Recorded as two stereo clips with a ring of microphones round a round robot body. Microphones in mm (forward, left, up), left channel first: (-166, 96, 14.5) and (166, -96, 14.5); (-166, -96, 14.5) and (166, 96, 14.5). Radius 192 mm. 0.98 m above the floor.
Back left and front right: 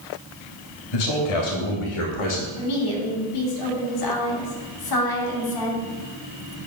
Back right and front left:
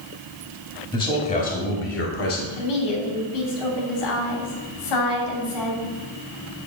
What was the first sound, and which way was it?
A man speaking, 130° left.